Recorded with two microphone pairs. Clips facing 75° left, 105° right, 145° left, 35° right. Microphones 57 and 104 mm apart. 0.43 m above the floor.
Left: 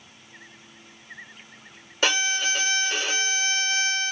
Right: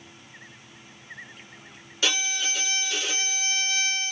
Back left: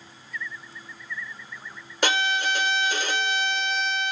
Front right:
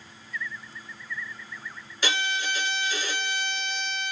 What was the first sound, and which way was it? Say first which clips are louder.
A violin: left 4 dB, back left 5 dB; 115° left.